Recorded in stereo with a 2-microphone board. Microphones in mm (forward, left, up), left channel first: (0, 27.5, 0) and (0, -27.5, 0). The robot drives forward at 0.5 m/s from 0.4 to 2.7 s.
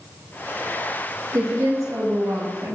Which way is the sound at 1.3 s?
65° right (ahead or behind).